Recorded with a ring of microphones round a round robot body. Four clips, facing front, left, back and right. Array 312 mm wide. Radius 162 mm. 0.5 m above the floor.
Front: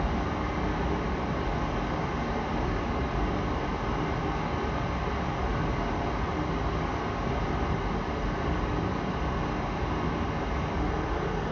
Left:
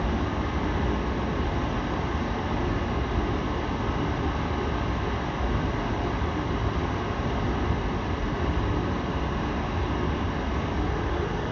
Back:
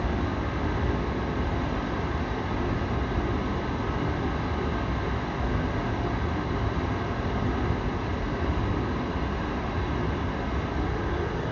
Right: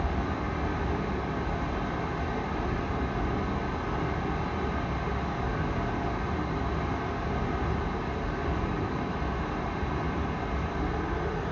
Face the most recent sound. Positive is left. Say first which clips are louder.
# left 3 dB, back 1 dB
turn(degrees=115)